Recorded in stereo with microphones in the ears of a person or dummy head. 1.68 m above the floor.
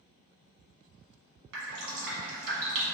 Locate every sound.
1.5 s dripping: 70° right (ahead or behind), 1.2 m